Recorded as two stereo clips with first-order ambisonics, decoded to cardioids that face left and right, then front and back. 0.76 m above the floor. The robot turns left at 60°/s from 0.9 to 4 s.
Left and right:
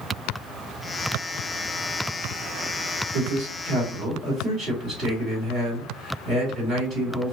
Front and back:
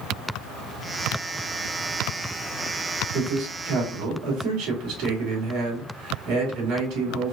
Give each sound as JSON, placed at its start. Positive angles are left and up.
{"t": 3.1, "sound": "a man speaking", "azimuth_deg": -105, "distance_m": 2.0}